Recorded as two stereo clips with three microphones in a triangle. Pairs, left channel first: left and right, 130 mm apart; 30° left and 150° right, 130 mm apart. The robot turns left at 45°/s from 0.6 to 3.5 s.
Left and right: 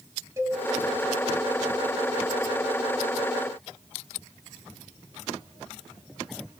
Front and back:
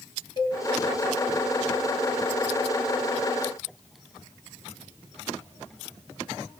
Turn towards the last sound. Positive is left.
turn(degrees=-155)